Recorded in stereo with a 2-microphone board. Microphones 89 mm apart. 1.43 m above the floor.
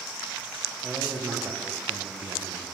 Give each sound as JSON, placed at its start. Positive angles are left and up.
{"t": 0.8, "sound": "a man speaking", "side_deg": -25, "distance_m": 1.0}